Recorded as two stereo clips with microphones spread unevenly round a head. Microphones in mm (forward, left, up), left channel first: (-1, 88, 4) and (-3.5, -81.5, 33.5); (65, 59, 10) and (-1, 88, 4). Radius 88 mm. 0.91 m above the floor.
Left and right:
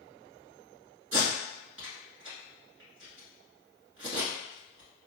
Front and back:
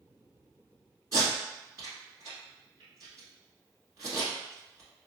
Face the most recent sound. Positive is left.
turn(degrees=-90)